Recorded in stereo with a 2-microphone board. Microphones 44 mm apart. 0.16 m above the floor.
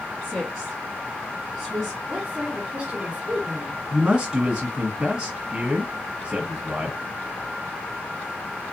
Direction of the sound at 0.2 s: 10° left (ahead or behind).